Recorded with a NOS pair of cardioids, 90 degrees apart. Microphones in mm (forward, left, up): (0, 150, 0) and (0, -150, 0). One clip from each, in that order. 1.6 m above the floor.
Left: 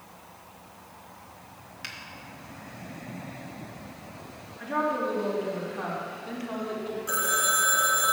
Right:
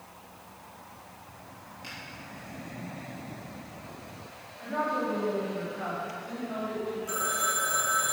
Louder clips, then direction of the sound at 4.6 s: Left 2 dB; 50° left.